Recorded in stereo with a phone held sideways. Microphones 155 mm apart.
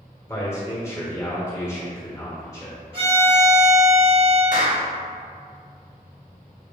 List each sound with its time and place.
0.3 s a man speaking: 20° left (ahead or behind), 1.0 m
2.9 s a violin: 35° right (ahead or behind), 1.7 m
4.5 s a clap: 60° left (ahead or behind), 0.8 m